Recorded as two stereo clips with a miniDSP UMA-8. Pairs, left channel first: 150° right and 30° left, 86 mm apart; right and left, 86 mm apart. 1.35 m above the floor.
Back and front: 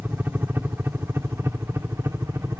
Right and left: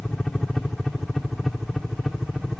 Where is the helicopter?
10° right; by 2.6 s 5° left.